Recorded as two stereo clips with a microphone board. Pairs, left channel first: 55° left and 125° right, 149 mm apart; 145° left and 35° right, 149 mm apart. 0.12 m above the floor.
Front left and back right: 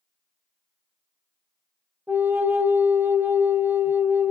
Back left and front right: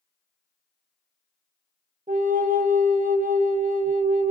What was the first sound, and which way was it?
A flute, 50° right.